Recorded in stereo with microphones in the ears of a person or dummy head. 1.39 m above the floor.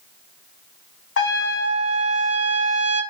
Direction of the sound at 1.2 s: 80° left.